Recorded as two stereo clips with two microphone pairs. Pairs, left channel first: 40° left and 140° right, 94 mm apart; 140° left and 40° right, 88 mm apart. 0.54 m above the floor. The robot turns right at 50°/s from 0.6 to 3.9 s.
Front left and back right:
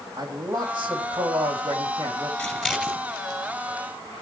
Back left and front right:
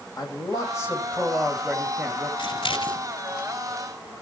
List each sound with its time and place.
0.2 s a man speaking: 175° right, 3 m; by 2.3 s 90° right, 3 m
2.4 s scissors: 115° left, 2 m; by 3.0 s 145° left, 2 m